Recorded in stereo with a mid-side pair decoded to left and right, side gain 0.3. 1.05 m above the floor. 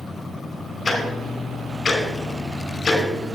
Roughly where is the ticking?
Ahead left.